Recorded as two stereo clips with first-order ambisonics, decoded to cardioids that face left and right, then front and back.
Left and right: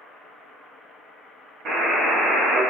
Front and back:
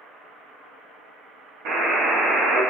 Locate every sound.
1.6 s a buzzer: 145° right, 0.9 m